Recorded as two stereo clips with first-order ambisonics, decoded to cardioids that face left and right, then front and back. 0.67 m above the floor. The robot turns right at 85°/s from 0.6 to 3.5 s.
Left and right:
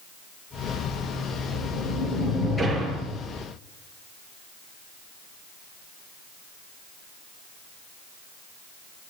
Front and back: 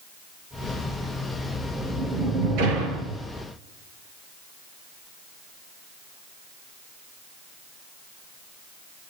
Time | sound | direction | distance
1.5 | a sliding door | 70° left | 8.5 m